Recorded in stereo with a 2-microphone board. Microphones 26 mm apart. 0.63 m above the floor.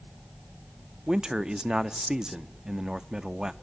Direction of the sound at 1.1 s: 25° right (ahead or behind).